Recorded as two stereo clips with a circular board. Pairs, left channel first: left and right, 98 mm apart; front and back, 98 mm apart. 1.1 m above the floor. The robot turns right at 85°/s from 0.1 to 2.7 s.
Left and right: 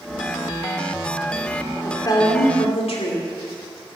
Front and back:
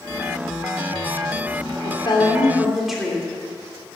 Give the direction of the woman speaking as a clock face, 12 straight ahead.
11 o'clock.